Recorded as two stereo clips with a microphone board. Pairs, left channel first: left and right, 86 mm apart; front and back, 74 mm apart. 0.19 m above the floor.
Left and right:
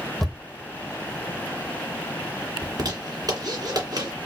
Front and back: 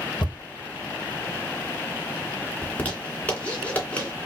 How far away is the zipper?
About 2.5 m.